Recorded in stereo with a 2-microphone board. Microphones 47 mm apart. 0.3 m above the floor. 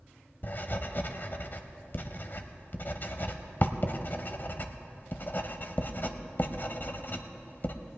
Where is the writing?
45° left (ahead or behind), 0.8 m.